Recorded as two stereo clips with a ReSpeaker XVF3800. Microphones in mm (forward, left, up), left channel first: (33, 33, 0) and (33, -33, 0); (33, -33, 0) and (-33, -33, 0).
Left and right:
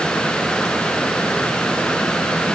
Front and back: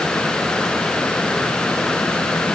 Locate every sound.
Only background noise.